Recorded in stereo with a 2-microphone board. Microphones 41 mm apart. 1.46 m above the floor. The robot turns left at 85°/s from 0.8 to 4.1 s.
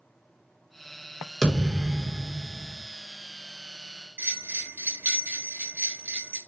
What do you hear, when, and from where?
1.4 s a thud: 20° left, 1.3 m; by 2.8 s 95° right, 1.3 m
4.2 s a bell: 45° right (ahead or behind), 1.4 m